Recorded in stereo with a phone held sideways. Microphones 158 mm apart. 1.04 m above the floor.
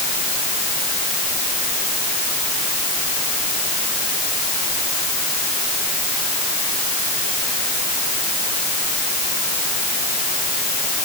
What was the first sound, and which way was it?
Only background noise.